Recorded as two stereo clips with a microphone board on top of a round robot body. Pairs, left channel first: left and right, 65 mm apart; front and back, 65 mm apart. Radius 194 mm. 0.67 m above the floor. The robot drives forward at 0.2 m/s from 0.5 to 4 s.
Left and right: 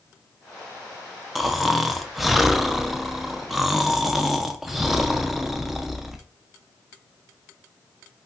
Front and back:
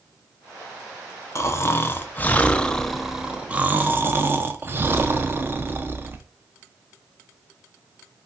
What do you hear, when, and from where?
1.4 s snoring: 5° right, 0.6 m; by 6.2 s 175° right, 0.5 m